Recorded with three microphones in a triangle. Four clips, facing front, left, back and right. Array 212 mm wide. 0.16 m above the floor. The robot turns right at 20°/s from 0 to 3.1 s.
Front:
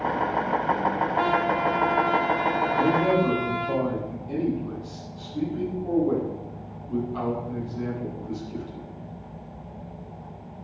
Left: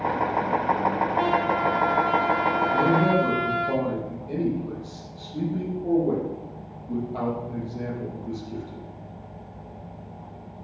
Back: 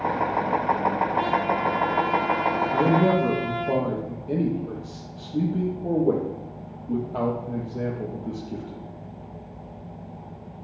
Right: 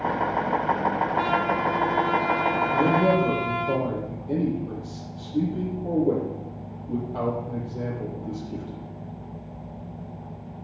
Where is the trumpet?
25° left, 4 m; by 3.7 s 60° left, 4 m.